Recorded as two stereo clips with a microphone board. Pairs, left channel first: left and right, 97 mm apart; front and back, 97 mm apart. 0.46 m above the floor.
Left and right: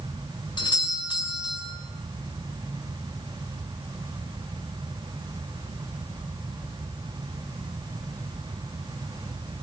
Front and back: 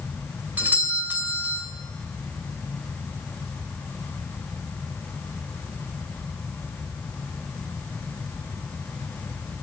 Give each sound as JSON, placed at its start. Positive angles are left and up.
{"t": 0.6, "sound": "a doorbell", "azimuth_deg": 110, "distance_m": 2.5}